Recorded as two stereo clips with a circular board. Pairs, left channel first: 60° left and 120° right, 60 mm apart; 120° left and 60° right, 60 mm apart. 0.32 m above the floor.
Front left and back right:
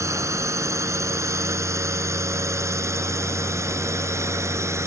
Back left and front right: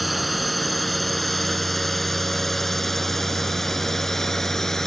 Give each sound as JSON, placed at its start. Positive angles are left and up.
{"t": 0.0, "sound": "a drone", "azimuth_deg": -150}